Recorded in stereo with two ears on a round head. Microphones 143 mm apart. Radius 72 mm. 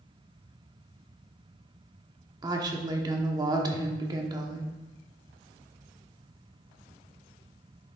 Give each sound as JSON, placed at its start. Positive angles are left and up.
{"t": 2.4, "sound": "a woman speaking", "side_deg": -25, "distance_m": 1.0}